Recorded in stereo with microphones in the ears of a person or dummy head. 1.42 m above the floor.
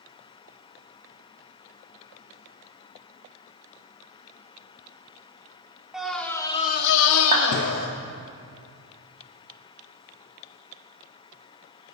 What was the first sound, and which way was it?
A scream, centre (ahead or behind).